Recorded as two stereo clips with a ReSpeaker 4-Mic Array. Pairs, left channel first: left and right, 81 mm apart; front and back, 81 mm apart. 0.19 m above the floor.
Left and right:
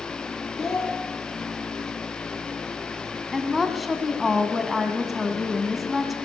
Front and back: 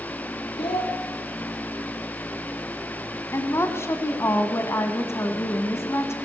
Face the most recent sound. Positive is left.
turn(degrees=0)